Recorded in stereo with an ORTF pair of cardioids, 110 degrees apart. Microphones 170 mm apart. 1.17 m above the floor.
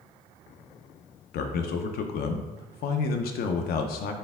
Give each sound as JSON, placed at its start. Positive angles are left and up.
{"t": 1.3, "sound": "a man speaking", "azimuth_deg": 65, "distance_m": 0.6}